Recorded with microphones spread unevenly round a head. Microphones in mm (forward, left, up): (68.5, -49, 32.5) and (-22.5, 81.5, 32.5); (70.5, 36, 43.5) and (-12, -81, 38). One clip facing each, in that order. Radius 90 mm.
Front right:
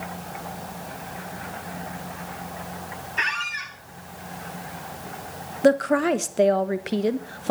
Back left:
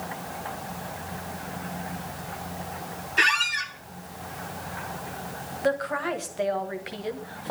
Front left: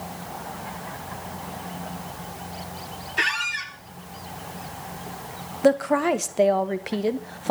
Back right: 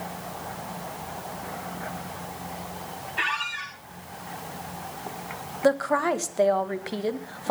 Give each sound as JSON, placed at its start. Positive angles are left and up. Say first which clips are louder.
{"t": 3.2, "sound": "a squeak", "louder": "back left 3 dB, front left 3 dB", "azimuth_deg": 90, "distance_m": 1.5}
{"t": 5.6, "sound": "a woman speaking", "louder": "front right 8 dB, front left 3 dB", "azimuth_deg": -20, "distance_m": 1.3}